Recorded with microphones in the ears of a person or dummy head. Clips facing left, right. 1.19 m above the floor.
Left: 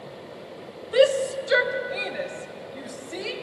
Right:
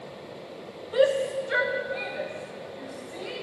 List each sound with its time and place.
0.9 s a shout: 25° left (ahead or behind), 0.6 m; by 3.3 s 75° left (ahead or behind), 2 m